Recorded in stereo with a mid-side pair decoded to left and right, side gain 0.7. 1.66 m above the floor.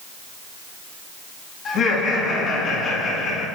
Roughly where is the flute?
I don't hear a flute.